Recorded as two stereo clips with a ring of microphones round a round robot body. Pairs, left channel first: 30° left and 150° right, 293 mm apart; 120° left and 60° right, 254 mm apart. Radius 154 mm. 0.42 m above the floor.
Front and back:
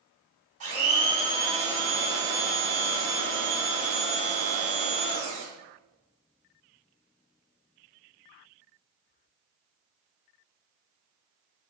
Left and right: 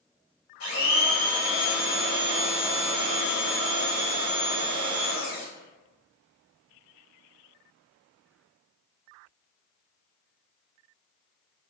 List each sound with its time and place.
0.6 s a blender: 145° left, 1.7 m